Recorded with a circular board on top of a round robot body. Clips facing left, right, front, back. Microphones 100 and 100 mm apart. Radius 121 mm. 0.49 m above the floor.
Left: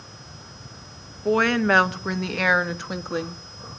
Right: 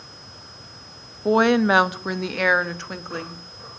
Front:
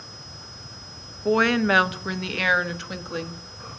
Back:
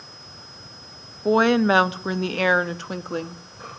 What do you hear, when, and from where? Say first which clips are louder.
1.2 s a woman speaking: right 3 dB, back 3 dB; 135° right, 1.4 m; by 3.4 s 155° left, 1.7 m